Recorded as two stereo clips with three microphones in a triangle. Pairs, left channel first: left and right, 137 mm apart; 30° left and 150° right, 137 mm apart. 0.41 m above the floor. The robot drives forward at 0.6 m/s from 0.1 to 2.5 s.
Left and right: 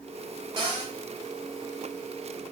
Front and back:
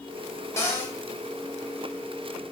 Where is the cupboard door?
40° right, 1.0 m; by 0.9 s 50° right, 0.8 m.